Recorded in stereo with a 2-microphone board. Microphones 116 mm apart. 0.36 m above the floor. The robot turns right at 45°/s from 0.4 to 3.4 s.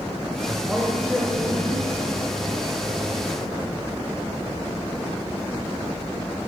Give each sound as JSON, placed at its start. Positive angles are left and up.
{"t": 0.7, "sound": "a man speaking", "azimuth_deg": -10, "distance_m": 1.3}